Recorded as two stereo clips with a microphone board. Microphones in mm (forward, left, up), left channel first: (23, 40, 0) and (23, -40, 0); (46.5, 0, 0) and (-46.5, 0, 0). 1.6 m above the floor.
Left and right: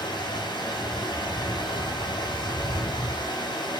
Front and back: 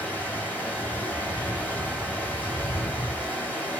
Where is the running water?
70° left, 4 m.